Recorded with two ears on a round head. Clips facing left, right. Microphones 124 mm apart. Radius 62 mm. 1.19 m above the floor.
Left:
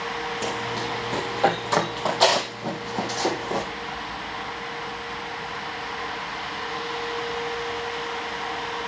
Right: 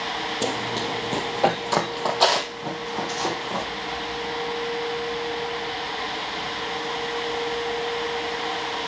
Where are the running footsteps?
40° right (ahead or behind), 1.5 m; by 3.7 s 15° left (ahead or behind), 2.5 m.